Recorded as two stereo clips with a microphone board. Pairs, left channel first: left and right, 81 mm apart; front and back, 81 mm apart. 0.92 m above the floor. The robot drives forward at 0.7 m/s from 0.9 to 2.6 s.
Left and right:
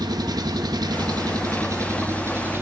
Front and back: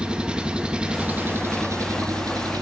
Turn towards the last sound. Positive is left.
turn(degrees=-150)